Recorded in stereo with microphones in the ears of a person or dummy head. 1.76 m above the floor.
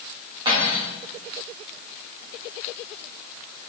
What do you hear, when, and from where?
0.5 s cutlery clinking: 30° right (ahead or behind), 1.7 m